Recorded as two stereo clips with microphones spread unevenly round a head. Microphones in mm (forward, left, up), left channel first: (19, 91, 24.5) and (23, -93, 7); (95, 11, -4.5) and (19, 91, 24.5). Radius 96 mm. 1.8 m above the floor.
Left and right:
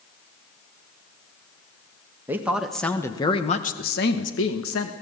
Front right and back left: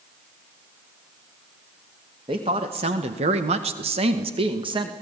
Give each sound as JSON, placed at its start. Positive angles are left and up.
{"t": 2.3, "sound": "a woman speaking", "azimuth_deg": -170, "distance_m": 2.0}